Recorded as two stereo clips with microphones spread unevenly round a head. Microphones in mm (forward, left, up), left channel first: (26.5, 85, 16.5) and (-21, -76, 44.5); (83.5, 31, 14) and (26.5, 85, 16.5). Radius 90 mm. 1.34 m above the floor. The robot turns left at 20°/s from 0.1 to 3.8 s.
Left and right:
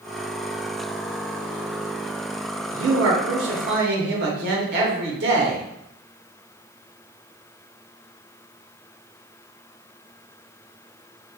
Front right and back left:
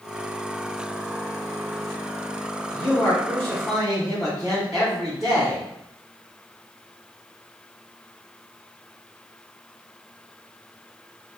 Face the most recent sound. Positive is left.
turn(degrees=-130)